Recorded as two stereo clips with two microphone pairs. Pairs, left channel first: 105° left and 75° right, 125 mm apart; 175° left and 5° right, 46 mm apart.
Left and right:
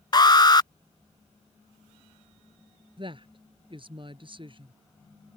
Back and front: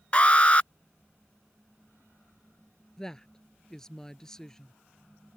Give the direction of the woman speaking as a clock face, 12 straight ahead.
4 o'clock.